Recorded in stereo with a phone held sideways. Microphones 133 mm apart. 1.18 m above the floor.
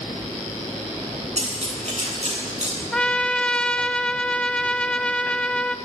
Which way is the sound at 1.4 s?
60° right (ahead or behind).